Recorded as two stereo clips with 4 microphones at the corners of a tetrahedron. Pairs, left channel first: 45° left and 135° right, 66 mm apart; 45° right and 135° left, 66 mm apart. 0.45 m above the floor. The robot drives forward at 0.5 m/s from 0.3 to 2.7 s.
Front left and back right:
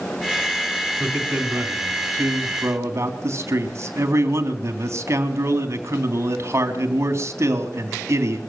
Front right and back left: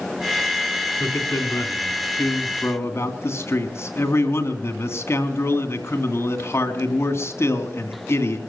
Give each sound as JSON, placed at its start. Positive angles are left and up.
{"t": 1.0, "sound": "a man speaking", "azimuth_deg": -75, "distance_m": 3.5}